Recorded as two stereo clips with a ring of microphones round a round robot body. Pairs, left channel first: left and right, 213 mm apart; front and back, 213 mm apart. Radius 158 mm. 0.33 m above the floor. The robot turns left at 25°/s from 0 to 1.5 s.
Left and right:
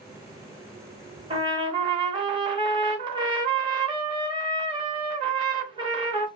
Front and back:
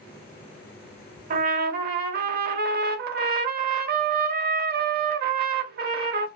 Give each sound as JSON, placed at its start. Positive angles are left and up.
{"t": 1.3, "sound": "a trumpet", "azimuth_deg": -150, "distance_m": 0.7}